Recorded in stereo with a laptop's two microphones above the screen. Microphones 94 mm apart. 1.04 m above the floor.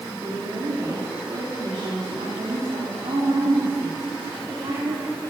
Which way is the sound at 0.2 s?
55° right (ahead or behind).